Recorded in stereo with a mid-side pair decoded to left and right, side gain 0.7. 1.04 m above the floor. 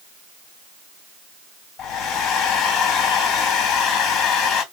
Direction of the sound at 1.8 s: 50° left.